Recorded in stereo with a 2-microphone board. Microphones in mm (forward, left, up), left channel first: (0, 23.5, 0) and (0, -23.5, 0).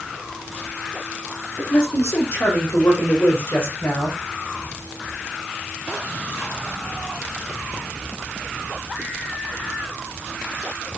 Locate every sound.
1.6 s a man speaking: 75° left (ahead or behind), 7 m; by 4.2 s 55° left (ahead or behind), 10 m